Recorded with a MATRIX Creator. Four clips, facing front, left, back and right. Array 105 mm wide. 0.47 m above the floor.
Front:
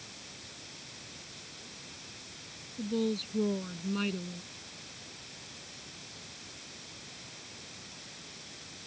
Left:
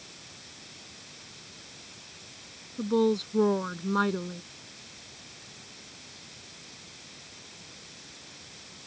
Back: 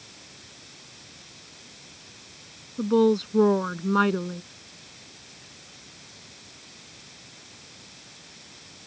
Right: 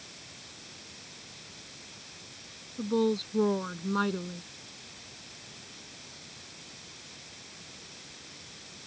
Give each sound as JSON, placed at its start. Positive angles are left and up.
{"t": 2.8, "sound": "a woman speaking", "azimuth_deg": 170}